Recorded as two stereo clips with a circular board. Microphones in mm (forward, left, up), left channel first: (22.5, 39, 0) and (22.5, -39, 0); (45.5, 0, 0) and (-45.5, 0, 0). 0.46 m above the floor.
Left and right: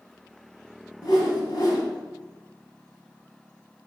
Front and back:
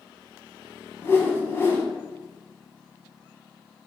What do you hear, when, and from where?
1.0 s a whoosh: 60° left, 0.8 m